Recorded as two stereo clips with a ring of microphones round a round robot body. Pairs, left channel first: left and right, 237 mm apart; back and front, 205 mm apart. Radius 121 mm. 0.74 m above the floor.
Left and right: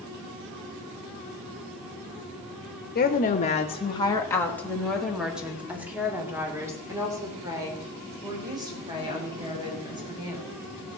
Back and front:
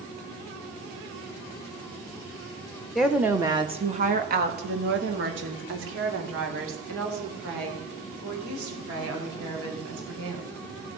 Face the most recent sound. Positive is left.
turn(degrees=-20)